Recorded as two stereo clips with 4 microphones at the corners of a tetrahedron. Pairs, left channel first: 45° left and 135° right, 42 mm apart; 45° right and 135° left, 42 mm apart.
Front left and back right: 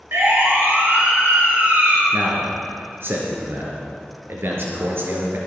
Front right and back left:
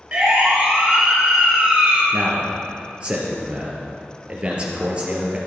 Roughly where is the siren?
Behind.